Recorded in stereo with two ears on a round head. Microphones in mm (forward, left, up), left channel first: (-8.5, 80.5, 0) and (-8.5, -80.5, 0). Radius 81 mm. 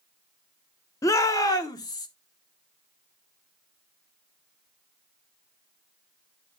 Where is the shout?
15° left (ahead or behind), 0.9 m; by 2.1 s 20° left (ahead or behind), 1.2 m.